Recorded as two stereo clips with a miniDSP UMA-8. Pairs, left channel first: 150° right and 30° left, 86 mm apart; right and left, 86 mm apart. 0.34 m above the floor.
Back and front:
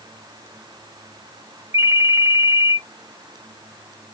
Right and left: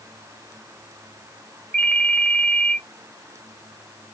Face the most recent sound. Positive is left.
turn(degrees=-25)